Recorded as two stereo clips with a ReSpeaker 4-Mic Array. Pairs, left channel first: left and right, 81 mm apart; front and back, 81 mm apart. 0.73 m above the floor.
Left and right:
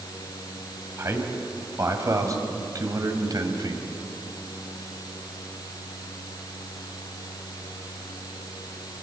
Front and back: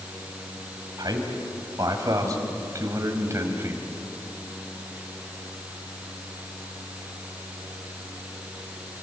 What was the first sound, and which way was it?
A man speaking, 145° right.